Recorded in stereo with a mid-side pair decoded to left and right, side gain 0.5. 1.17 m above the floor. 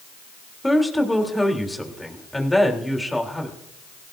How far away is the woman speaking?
About 3.5 m.